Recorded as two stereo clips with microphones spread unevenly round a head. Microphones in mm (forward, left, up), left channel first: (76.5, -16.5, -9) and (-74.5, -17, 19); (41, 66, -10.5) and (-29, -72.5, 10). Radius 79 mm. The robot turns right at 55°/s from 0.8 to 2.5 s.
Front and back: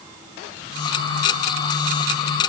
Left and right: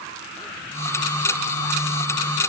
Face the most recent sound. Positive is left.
No sound to turn to.